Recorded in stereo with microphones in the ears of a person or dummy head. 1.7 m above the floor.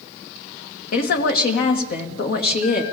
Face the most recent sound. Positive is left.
turn(degrees=55)  # may be behind; listen again after turning